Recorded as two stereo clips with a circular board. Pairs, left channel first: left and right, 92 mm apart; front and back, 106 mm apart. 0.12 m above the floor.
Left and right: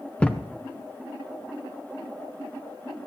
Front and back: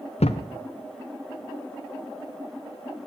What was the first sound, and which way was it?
A thud, 10° left.